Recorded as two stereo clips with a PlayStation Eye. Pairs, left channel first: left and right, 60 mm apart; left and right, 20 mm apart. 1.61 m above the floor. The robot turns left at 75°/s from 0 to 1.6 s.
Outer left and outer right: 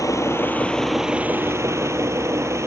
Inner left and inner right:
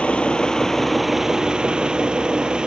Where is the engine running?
70° left; by 2.7 s 50° right.